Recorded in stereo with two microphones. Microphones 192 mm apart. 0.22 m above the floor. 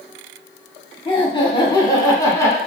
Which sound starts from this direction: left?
Laughter, at 1.1 s.